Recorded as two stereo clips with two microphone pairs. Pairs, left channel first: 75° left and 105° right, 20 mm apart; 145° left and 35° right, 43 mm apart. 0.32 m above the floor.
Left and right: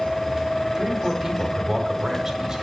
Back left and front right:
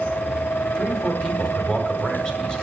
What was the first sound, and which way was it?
A man speaking, 155° right.